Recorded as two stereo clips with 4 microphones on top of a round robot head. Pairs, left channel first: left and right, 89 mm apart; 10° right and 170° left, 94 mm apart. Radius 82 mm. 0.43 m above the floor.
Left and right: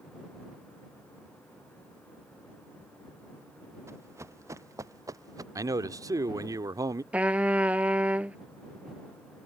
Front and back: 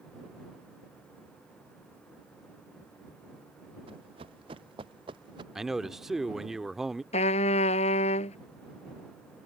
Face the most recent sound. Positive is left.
turn(degrees=-10)